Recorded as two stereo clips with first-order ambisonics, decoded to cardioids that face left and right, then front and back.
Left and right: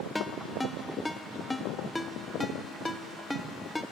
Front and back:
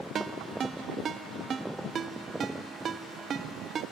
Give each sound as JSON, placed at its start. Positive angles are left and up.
{"t": 0.1, "sound": "a ringtone", "azimuth_deg": 165, "distance_m": 0.7}